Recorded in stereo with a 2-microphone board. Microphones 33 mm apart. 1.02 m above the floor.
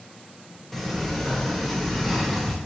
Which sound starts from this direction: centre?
A sliding door, at 0.7 s.